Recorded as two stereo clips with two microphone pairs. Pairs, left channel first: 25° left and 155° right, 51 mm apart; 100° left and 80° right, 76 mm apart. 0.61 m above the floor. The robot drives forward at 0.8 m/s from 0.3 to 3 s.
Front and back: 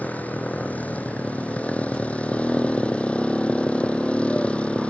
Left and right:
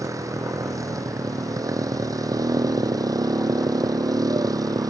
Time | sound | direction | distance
0.0 | a motorcycle | 35° right | ?